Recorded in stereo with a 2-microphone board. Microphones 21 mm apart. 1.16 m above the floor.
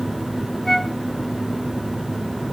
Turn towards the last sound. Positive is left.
turn(degrees=15)  # may be behind; listen again after turning